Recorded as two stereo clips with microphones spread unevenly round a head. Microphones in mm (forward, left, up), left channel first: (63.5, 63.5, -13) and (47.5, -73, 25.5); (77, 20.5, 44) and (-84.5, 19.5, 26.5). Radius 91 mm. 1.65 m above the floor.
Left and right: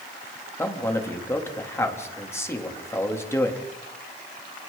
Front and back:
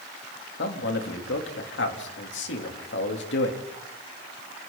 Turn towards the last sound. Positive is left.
turn(degrees=10)